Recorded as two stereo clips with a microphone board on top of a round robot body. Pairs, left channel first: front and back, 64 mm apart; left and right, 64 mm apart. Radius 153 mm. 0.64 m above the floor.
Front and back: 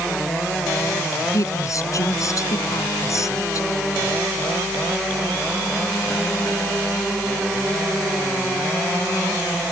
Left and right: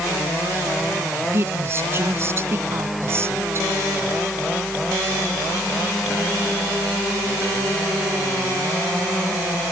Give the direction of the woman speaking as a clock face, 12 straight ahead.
1 o'clock.